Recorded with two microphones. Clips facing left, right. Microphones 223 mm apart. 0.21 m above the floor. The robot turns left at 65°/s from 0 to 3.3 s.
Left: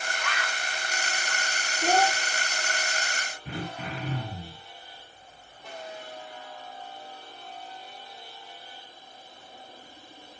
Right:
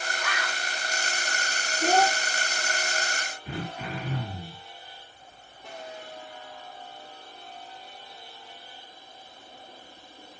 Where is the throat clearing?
25° left (ahead or behind), 5 m.